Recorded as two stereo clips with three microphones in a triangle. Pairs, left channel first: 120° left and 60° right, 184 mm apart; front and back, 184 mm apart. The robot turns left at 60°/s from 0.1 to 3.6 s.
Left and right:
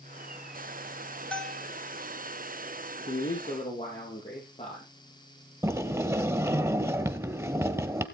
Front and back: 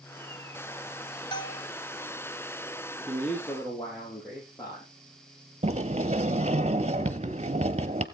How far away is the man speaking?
About 4 m.